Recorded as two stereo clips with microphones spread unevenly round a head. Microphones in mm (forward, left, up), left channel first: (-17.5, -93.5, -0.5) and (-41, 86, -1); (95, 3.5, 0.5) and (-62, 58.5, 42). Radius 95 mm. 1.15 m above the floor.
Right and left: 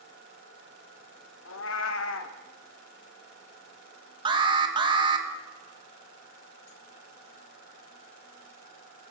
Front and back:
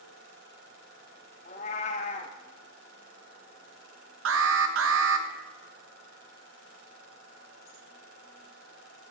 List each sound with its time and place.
1.4 s a cat meowing: 80° right, 0.9 m
4.2 s an alarm: 165° left, 1.1 m